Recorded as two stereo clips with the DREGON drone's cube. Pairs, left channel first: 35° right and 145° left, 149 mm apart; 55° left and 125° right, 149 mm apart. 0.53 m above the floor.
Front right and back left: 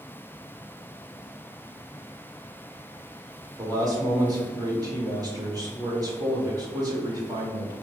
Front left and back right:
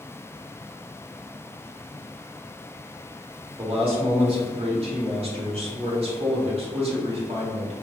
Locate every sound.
3.6 s a man speaking: 160° right, 1.2 m